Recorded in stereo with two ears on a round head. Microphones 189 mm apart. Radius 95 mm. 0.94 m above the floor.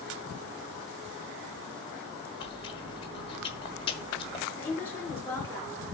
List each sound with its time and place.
2.4 s chewing: 25° left (ahead or behind), 1.5 m
4.6 s a woman speaking: 10° left (ahead or behind), 3 m